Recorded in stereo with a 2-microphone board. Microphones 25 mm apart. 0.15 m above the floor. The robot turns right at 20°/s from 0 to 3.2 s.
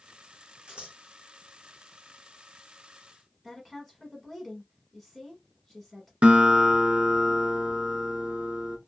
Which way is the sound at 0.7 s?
40° right (ahead or behind).